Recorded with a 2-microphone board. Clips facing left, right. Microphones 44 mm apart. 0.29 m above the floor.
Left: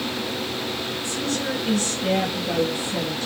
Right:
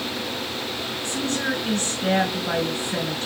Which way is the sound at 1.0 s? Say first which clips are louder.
Right 2 dB; 45° right (ahead or behind).